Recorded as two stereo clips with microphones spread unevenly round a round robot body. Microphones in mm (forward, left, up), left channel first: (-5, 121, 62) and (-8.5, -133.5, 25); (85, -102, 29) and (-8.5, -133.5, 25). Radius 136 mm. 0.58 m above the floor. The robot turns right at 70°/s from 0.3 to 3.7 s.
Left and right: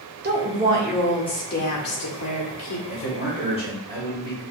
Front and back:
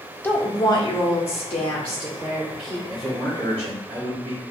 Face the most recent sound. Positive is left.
turn(degrees=170)